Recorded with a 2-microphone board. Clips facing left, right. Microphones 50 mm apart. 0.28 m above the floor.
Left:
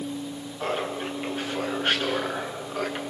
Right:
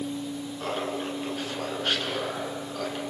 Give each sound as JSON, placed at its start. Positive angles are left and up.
{"t": 0.6, "sound": "laughter", "side_deg": 20, "distance_m": 4.5}